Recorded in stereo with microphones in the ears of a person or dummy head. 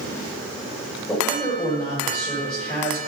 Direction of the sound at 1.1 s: 5° left (ahead or behind).